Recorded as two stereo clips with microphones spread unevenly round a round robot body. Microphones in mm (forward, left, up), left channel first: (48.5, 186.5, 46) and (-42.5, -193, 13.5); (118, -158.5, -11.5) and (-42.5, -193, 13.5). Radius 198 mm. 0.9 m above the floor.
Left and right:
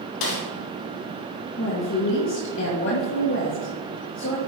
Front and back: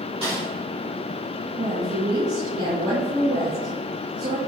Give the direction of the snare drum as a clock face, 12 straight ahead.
8 o'clock.